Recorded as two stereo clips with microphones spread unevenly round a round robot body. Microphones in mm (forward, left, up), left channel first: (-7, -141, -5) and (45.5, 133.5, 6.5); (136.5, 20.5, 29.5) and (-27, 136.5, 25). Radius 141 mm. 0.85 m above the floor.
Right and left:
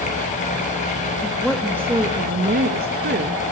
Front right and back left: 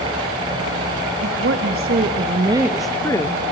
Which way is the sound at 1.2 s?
170° left.